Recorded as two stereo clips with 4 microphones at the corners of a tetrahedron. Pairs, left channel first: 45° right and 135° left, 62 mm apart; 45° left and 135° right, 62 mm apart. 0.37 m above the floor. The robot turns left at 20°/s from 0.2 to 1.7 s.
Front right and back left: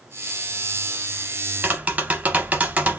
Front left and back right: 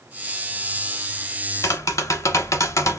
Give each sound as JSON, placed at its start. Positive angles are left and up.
{"t": 1.6, "sound": "tapping", "azimuth_deg": 75, "distance_m": 0.7}